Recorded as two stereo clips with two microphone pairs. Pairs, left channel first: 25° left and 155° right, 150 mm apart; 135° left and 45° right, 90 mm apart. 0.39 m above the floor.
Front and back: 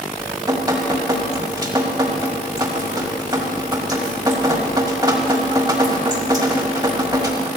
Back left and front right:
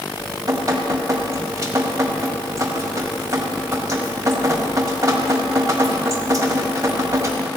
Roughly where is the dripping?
Right.